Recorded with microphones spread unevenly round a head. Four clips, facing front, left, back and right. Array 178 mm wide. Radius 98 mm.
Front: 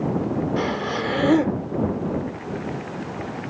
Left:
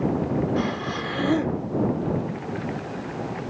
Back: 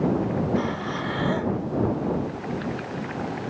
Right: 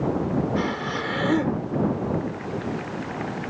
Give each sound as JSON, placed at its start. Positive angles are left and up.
{"t": 0.6, "sound": "breathing", "azimuth_deg": 0}